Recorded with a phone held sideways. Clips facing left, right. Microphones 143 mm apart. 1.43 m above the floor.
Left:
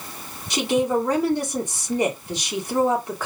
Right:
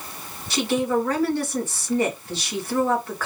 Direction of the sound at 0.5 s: 20° left (ahead or behind).